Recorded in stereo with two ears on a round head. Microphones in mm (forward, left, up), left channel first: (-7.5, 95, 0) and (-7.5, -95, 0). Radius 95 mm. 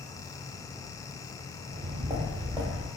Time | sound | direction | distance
1.7 | footsteps | 15° right (ahead or behind) | 1.4 m